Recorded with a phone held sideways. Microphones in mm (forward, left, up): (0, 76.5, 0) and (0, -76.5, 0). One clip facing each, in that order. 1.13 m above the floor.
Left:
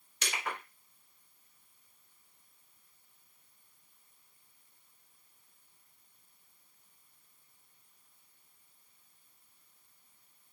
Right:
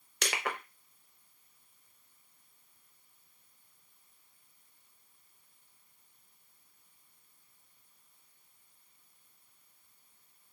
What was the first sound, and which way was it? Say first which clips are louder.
Crushing: right 3 dB; 75° right (ahead or behind).